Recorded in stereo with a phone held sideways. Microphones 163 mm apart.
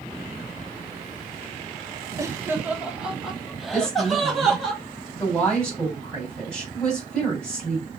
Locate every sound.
2.2 s laughter: 20° right (ahead or behind), 0.7 m; by 4.7 s 5° left (ahead or behind), 2.5 m
3.7 s a woman speaking: 5° left (ahead or behind), 3.5 m